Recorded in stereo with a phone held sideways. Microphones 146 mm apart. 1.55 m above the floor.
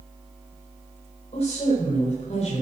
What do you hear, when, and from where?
1.3 s a woman speaking: 50° left (ahead or behind), 7 m